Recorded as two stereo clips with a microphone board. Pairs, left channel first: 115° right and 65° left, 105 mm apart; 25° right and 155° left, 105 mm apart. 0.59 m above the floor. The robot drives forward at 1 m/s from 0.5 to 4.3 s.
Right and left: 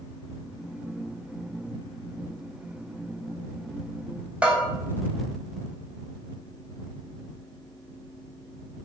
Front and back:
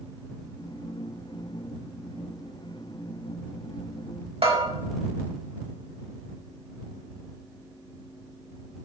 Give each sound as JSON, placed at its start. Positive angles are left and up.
{"t": 4.4, "sound": "a bell", "azimuth_deg": 145, "distance_m": 4.5}